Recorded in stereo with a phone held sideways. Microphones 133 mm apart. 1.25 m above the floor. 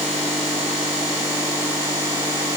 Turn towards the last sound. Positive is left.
No sound to turn to.